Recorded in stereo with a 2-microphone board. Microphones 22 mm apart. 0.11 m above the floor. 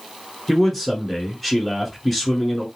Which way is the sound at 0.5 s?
5° left (ahead or behind).